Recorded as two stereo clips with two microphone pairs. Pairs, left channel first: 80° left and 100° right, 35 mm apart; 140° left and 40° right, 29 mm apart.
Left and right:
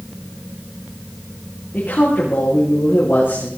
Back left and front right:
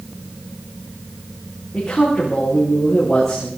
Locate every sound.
1.7 s a man speaking: 55° left, 8.5 m